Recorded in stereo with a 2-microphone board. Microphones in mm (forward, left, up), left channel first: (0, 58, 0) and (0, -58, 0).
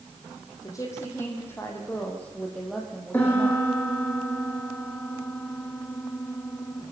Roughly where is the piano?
Centre.